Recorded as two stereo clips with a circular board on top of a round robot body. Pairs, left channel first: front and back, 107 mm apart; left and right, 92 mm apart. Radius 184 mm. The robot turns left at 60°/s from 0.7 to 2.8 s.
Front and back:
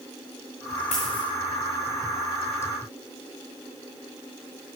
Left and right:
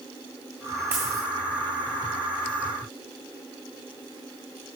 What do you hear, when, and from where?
0.9 s a dropped coin: 25° right, 1.3 m; by 1.2 s 45° right, 1.3 m